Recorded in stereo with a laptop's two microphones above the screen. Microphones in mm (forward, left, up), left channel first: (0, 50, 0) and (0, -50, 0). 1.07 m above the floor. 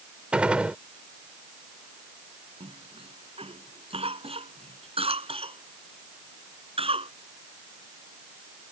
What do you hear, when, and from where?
0.3 s a gunshot: 10° right (ahead or behind)
2.6 s a cough: 85° right